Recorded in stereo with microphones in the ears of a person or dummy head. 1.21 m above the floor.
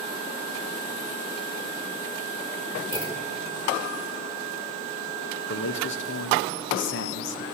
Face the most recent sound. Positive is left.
turn(degrees=70)  # may be behind; listen again after turning